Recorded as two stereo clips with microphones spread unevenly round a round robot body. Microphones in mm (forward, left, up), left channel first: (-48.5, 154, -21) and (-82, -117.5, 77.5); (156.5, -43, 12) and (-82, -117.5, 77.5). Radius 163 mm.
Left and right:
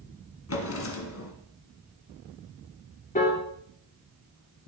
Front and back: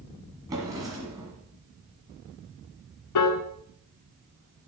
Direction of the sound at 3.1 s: 10° left.